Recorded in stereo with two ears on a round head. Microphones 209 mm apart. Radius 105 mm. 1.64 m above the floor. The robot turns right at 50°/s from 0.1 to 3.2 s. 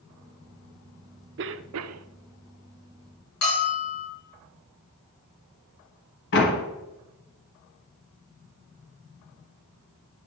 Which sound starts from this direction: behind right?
A cough, at 1.4 s.